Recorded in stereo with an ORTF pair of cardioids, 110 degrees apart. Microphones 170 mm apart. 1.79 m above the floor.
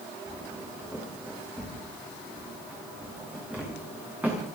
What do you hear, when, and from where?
0.3 s footsteps: 10° right, 9 m